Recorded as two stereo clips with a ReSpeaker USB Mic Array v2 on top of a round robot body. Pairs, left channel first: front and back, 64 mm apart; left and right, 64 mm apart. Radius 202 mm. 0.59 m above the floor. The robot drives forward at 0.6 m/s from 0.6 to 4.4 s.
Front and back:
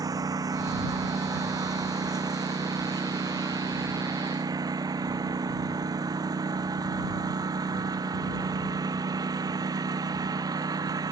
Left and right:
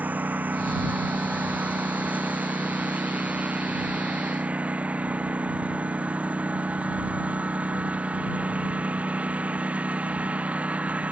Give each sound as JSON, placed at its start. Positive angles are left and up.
{"t": 0.0, "sound": "a lawn mower", "azimuth_deg": -155}